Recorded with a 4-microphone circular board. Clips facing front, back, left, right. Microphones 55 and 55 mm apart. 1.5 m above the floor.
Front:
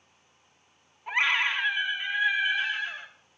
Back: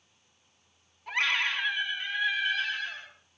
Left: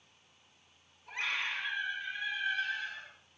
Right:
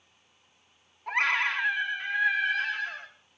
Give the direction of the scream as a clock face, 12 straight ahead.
2 o'clock.